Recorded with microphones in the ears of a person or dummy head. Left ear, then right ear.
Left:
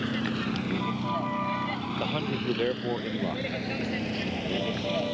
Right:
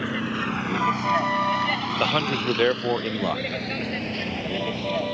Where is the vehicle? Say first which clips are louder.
Right 4 dB; 35° right (ahead or behind); by 5.1 s 20° right (ahead or behind).